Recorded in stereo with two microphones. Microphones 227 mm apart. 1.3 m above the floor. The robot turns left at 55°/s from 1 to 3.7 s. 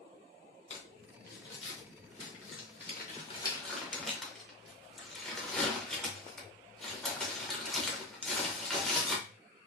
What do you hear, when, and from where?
0.7 s crumpling: 30° left (ahead or behind), 0.8 m; by 9.2 s 5° left (ahead or behind), 0.8 m